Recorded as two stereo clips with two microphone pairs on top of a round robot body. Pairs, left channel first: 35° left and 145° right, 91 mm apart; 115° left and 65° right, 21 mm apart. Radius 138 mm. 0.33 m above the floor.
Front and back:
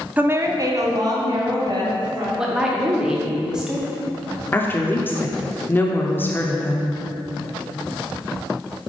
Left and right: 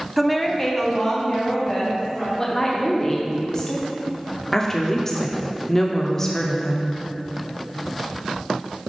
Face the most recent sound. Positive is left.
turn(degrees=85)